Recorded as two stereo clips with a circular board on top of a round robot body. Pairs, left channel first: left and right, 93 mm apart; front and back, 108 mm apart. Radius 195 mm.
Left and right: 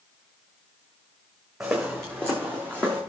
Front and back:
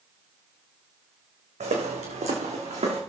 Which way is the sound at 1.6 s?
175° right.